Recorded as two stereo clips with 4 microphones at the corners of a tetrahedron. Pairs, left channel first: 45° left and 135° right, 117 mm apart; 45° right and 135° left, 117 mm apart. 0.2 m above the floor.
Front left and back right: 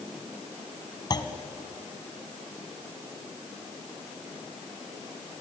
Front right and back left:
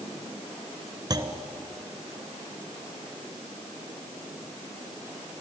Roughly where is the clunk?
Left.